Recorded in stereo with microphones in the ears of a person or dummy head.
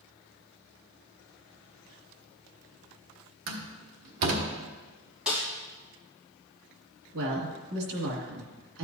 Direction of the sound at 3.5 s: 70° right (ahead or behind).